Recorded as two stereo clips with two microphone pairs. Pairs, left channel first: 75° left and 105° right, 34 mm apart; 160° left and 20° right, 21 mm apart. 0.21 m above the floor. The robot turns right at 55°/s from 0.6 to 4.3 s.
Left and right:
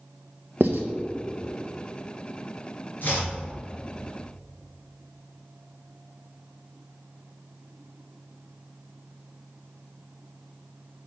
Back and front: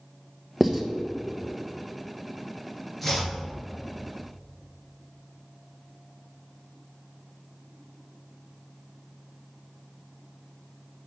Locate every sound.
0.6 s writing: 105° right, 0.9 m; by 0.8 s 90° right, 0.9 m
3.0 s chopping: 75° left, 2.5 m; by 3.3 s 95° left, 2.5 m